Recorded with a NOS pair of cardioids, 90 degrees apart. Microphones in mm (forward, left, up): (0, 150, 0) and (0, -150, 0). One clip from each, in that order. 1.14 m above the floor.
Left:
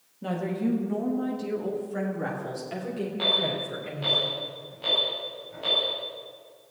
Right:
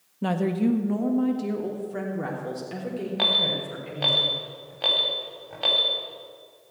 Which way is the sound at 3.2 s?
65° right.